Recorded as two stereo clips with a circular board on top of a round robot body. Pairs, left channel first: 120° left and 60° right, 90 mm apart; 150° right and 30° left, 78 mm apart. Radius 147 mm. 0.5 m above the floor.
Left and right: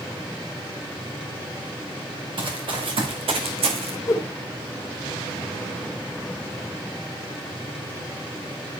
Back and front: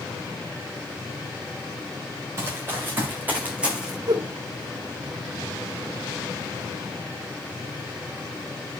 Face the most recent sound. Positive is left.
turn(degrees=65)